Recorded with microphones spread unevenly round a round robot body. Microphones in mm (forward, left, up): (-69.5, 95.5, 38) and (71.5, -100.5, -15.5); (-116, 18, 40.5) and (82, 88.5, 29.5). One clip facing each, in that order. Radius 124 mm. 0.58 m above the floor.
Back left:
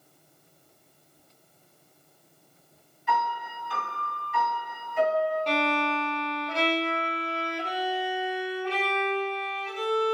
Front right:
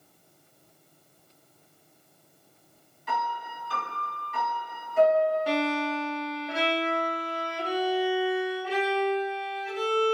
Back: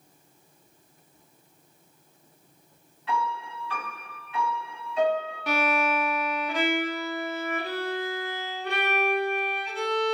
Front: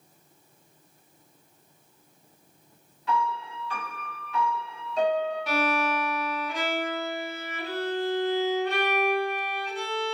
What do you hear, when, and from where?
3.1 s a piano: 25° right, 1.9 m
5.5 s a violin: 130° right, 0.5 m